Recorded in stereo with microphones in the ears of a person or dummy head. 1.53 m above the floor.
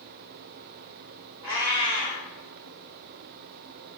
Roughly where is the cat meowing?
Centre.